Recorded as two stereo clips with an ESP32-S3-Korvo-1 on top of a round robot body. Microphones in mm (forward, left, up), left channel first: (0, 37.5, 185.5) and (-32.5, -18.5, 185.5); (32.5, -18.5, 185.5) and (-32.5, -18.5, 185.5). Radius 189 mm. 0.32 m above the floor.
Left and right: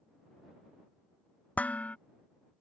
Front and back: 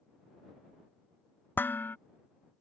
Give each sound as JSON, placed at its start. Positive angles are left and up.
{"t": 1.6, "sound": "dishes clattering", "azimuth_deg": 15}